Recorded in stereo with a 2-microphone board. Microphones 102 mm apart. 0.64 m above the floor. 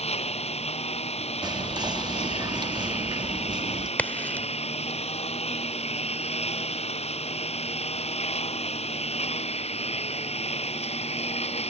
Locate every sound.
0.0 s a lawn mower: 85° left
1.4 s whispering: 40° right (ahead or behind)
4.0 s a crack: 15° left (ahead or behind)